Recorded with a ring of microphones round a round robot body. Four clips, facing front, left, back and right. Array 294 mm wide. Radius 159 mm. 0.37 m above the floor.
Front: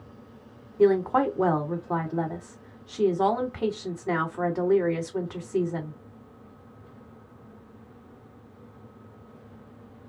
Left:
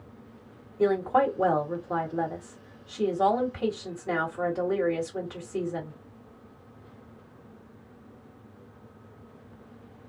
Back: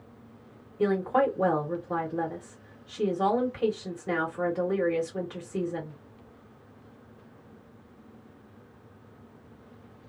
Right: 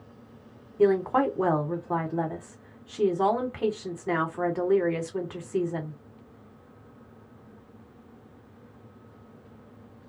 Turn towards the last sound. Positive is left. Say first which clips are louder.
# right 1 dB, front 4 dB
turn(degrees=-40)